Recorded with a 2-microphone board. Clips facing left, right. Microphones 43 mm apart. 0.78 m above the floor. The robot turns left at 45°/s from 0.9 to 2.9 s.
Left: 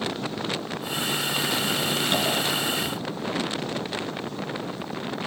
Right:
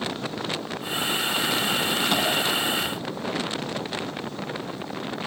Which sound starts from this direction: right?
Tapping, at 2.1 s.